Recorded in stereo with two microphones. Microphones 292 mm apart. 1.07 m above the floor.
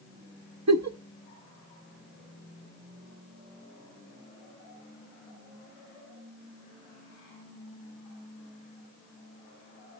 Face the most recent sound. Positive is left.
turn(degrees=-65)  # may be behind; listen again after turning